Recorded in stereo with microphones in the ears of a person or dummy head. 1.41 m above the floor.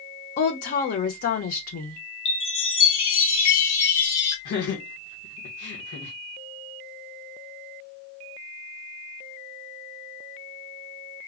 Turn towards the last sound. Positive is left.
turn(degrees=65)  # may be behind; listen again after turning